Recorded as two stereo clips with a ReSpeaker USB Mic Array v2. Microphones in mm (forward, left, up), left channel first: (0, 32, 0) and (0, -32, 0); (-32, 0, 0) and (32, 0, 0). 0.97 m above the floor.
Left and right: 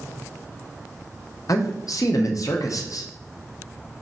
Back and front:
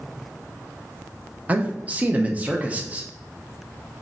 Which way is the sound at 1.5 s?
65° left.